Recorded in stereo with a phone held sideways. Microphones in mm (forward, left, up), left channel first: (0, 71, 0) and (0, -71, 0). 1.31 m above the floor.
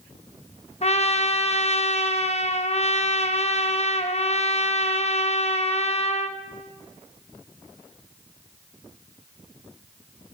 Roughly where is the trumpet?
Left.